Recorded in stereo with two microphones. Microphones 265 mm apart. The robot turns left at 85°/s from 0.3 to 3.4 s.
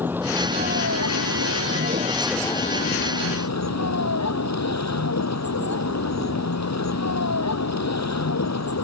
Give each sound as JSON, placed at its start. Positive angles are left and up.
{"t": 0.0, "sound": "a vehicle", "azimuth_deg": -5}